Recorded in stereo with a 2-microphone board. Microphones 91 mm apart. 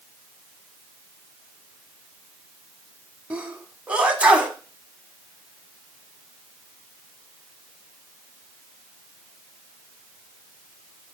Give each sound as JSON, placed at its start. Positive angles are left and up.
{"t": 3.3, "sound": "a sneeze", "side_deg": -15, "distance_m": 1.2}